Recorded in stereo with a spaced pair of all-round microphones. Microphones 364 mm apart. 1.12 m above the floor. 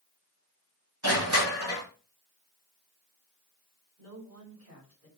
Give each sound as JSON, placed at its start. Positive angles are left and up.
{"t": 1.0, "sound": "crushing", "side_deg": -50, "distance_m": 6.0}
{"t": 4.0, "sound": "a woman speaking", "side_deg": -40, "distance_m": 6.0}